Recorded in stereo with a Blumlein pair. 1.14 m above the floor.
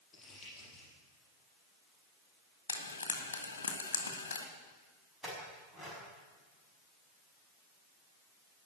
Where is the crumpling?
15° left, 7.5 m.